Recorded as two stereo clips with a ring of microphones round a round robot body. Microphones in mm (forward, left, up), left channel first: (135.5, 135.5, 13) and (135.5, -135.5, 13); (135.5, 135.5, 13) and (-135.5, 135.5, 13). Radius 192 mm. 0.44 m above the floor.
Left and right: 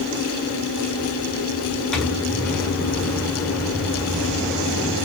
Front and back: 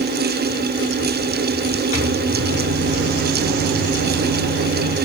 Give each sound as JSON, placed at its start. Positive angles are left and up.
{"t": 1.9, "sound": "a microwave", "azimuth_deg": 0, "distance_m": 1.6}